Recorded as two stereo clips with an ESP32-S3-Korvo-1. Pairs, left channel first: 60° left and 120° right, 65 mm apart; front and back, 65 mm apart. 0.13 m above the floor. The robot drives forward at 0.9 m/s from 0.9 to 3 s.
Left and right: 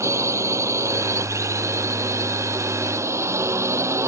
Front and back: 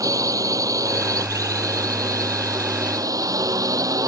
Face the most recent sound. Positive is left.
turn(degrees=-160)